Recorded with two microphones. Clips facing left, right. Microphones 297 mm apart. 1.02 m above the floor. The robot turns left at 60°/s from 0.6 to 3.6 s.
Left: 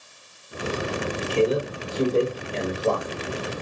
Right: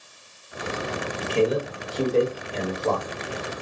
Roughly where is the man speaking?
Right.